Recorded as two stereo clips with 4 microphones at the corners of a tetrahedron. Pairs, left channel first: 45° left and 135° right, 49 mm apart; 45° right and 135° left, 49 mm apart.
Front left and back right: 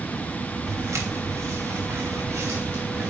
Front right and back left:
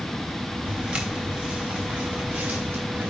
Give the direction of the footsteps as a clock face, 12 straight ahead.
5 o'clock.